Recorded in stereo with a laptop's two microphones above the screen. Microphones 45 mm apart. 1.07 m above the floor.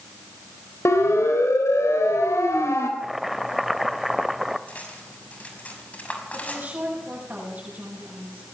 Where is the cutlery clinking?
30° left (ahead or behind), 5.5 m.